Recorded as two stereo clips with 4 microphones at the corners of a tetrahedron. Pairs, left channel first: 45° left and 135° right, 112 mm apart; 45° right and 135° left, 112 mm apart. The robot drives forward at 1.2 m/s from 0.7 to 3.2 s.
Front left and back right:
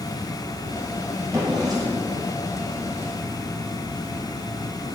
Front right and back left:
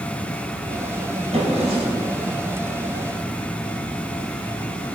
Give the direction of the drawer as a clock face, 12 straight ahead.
7 o'clock.